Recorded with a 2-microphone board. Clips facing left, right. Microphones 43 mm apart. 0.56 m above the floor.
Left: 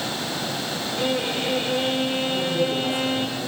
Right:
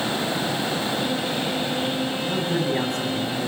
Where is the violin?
65° left (ahead or behind), 9 m.